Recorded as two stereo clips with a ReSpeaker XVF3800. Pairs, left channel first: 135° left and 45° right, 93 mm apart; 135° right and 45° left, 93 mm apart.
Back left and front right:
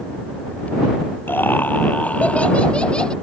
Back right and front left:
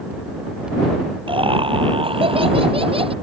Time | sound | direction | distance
1.3 | laughter | 65° left | ?